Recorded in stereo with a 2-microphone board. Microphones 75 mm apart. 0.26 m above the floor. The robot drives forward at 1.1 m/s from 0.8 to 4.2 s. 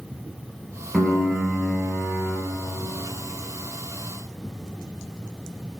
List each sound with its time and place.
0.9 s a piano: centre (ahead or behind), 2.5 m